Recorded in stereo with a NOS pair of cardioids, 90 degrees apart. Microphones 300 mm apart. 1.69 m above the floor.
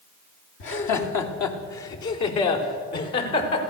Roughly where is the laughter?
Left.